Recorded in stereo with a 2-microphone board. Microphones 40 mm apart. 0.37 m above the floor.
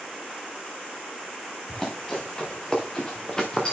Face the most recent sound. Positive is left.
turn(degrees=20)  # may be behind; listen again after turning